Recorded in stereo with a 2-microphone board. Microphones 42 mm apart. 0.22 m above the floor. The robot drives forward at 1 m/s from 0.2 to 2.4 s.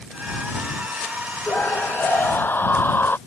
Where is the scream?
55° left (ahead or behind); by 3.2 s 60° left (ahead or behind).